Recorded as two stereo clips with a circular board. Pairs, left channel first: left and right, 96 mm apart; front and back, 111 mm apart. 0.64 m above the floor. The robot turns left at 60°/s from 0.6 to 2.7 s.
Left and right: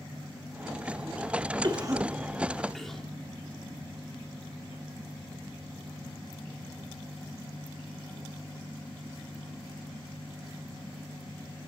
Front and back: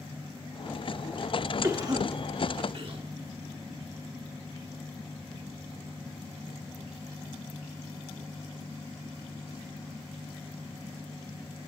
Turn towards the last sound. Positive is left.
turn(degrees=175)